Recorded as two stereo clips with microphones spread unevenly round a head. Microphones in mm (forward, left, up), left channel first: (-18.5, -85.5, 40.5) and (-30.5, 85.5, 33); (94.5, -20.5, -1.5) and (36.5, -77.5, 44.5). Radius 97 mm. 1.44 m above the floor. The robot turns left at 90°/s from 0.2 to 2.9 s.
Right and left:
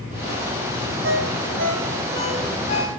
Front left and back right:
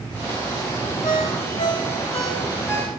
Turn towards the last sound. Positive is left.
turn(degrees=-45)